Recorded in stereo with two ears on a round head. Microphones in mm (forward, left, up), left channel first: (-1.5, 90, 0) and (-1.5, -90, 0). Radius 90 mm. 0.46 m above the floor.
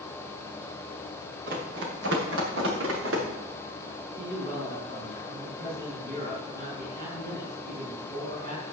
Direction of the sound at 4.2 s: 50° right (ahead or behind).